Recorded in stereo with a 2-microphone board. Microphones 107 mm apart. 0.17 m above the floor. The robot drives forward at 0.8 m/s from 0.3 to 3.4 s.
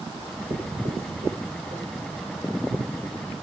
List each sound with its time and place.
0.1 s writing: 75° right (ahead or behind), 8 m; by 2.0 s 85° right, 8 m